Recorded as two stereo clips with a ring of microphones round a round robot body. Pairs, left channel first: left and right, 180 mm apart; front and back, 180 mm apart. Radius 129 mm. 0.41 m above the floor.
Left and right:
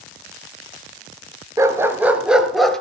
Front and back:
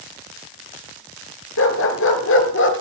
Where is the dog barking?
15° right, 2.5 m; by 2.8 s 5° left, 2.5 m.